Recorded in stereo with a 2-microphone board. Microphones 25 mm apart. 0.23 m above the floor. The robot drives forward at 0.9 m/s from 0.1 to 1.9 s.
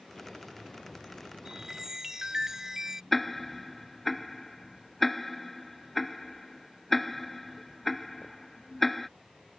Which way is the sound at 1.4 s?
20° right (ahead or behind).